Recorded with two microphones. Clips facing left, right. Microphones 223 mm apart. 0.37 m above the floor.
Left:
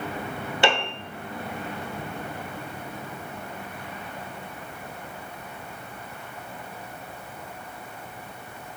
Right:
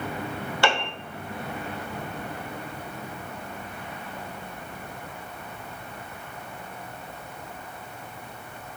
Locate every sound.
0.6 s a piano: 20° left (ahead or behind), 1.0 m